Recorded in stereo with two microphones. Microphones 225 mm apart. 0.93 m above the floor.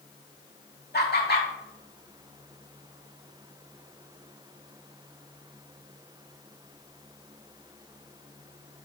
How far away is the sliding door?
No sliding door in this recording.